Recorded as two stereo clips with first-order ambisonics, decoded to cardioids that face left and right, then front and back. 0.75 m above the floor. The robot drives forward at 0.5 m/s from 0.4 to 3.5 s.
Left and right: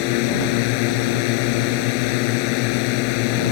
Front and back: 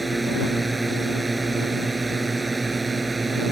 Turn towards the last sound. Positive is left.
turn(degrees=100)